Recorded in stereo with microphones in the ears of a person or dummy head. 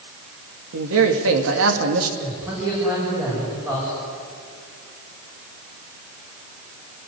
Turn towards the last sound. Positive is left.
turn(degrees=-15)  # may be behind; listen again after turning